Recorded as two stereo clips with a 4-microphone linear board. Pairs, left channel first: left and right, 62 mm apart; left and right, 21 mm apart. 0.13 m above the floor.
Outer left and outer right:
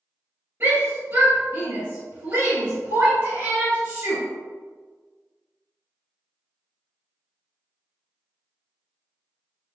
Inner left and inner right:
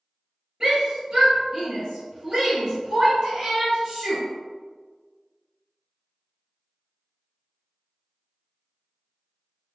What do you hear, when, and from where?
0.6 s a shout: 35° right (ahead or behind), 1.9 m